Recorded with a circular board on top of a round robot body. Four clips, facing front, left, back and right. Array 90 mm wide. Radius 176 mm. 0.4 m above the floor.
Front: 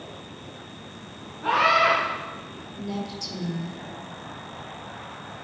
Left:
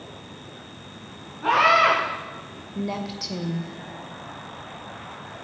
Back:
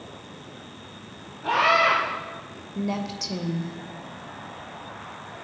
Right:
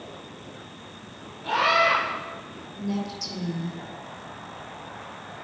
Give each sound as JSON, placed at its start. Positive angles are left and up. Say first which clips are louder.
{"t": 1.4, "sound": "a scream", "louder": "left 4 dB, even", "azimuth_deg": 70, "distance_m": 5.5}
{"t": 2.8, "sound": "a woman speaking", "louder": "left 1 dB, back 4 dB", "azimuth_deg": 130, "distance_m": 2.0}